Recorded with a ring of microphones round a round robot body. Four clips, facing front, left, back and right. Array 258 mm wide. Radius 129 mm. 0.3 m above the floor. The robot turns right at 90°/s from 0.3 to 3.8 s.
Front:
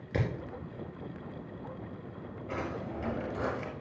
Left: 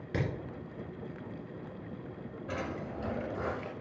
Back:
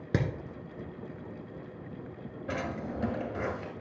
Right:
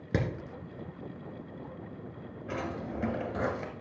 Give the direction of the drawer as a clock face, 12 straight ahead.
6 o'clock.